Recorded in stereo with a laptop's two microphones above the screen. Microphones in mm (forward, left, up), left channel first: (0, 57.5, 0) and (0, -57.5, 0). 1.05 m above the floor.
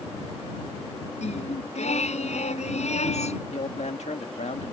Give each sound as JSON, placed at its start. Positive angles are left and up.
{"t": 1.2, "sound": "singing", "side_deg": 75}
{"t": 3.5, "sound": "a man speaking", "side_deg": 75}